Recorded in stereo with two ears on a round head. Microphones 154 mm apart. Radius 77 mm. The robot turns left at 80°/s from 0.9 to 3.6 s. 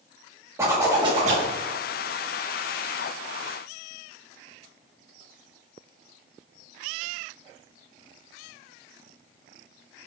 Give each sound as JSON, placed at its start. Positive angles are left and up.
{"t": 0.6, "sound": "a zipper", "azimuth_deg": -20, "distance_m": 1.7}